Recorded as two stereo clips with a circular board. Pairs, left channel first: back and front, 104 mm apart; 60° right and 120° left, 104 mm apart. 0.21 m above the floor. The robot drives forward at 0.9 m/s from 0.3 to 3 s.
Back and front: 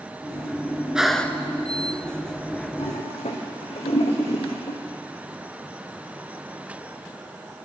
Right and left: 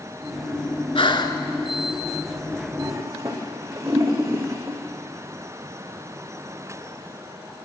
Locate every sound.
0.9 s breathing: 80° right, 0.8 m; by 1.4 s 115° right, 0.8 m
2.8 s a toilet flushing: straight behind, 3 m